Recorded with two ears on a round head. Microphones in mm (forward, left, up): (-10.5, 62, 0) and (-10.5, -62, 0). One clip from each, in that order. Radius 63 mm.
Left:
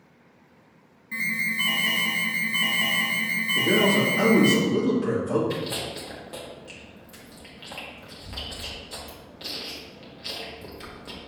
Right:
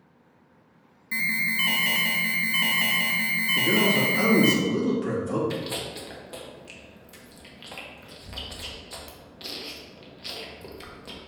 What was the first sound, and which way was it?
An alarm, 75° right (ahead or behind).